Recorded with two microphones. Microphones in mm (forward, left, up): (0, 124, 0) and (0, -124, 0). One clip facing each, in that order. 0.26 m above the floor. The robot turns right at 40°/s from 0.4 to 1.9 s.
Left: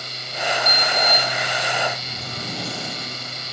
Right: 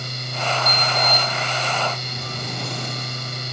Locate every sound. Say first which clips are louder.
0.7 s a sliding door: even; 120° left, 1.5 m; by 3.4 s 170° left, 1.5 m